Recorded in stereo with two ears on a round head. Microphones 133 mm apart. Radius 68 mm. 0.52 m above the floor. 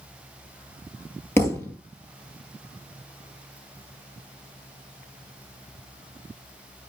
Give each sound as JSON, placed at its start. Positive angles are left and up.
{"t": 1.4, "sound": "a thud", "side_deg": 15, "distance_m": 1.5}